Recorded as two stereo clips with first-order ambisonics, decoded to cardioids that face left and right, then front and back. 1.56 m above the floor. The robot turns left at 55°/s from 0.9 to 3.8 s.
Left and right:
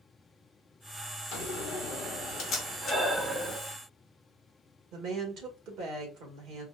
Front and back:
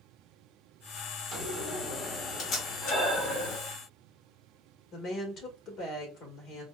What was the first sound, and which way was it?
A door slam, 105° left.